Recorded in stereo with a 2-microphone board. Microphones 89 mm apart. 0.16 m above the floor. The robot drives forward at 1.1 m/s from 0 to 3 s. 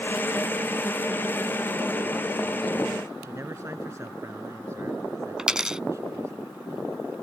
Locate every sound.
3.2 s a man speaking: 35° right (ahead or behind)
5.4 s a dropped coin: 10° right (ahead or behind)